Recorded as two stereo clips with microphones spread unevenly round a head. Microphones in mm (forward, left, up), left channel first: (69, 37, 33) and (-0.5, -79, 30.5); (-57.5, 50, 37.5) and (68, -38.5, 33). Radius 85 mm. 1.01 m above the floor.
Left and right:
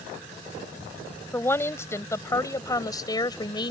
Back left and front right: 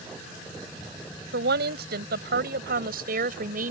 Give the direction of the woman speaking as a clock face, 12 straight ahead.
12 o'clock.